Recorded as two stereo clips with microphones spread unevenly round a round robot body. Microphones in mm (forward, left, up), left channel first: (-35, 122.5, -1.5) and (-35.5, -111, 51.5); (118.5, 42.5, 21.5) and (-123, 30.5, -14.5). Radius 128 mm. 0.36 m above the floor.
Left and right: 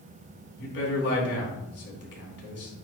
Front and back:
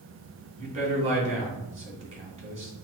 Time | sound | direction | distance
0.6 | a man speaking | 125° left | 3 m